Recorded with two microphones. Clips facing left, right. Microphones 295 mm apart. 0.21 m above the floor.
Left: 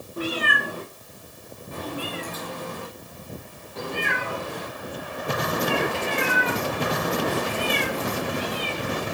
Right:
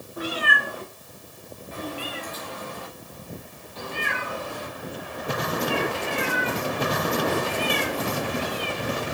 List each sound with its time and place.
0.2 s a cat meowing: 35° left (ahead or behind), 4 m; by 9.0 s 90° left, 5.5 m